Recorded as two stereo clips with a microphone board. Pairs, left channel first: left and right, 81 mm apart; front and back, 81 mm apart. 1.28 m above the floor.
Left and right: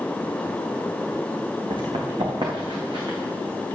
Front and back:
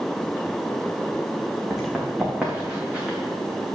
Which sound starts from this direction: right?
Running footsteps, at 1.7 s.